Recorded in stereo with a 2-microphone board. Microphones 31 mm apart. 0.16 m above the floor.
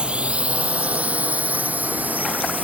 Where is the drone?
35° right (ahead or behind); by 2.6 s 70° right (ahead or behind).